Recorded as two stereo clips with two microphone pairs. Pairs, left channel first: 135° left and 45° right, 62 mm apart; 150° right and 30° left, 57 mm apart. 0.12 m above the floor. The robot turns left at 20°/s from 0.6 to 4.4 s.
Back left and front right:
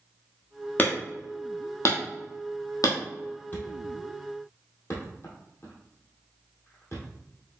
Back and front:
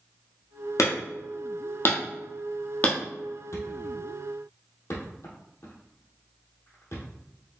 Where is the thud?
170° right, 1.8 m; by 7.1 s 175° left, 1.8 m.